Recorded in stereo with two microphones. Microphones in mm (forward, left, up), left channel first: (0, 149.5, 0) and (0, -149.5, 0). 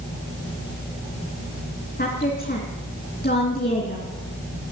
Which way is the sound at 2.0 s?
30° left (ahead or behind).